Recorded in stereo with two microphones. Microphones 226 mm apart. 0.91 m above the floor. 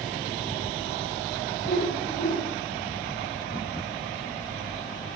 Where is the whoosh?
50° left (ahead or behind), 7 m.